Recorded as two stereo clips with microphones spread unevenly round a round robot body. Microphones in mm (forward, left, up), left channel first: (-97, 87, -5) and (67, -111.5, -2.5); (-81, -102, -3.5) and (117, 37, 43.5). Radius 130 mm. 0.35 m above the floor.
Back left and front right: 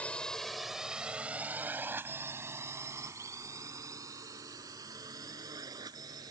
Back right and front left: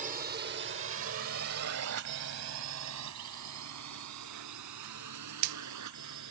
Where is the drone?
55° left; by 6.3 s 25° left.